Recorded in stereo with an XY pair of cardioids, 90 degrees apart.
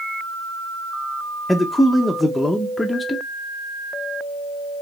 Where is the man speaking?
15° left, 0.6 m.